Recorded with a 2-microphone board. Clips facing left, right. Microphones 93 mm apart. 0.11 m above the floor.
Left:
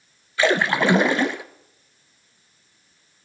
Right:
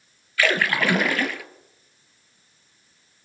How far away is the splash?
About 0.6 m.